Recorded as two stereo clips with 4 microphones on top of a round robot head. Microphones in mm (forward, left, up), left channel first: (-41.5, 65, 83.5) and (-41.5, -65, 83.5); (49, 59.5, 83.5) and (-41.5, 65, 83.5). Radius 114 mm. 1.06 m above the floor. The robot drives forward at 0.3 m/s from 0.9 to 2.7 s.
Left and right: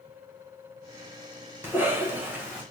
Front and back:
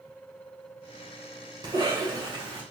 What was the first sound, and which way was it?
A cough, 160° right.